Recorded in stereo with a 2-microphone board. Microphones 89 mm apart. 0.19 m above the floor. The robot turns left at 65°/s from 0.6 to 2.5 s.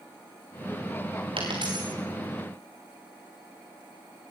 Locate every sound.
1.4 s a dropped coin: 80° right, 5 m; by 1.9 s 45° right (ahead or behind), 5 m